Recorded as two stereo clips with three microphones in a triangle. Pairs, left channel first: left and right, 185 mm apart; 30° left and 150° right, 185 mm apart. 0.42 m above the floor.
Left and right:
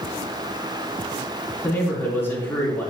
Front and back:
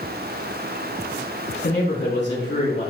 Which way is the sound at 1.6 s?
10° left.